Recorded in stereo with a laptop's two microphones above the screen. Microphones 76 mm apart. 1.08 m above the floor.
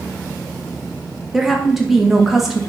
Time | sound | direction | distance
1.3 | a woman speaking | 5° right (ahead or behind) | 0.6 m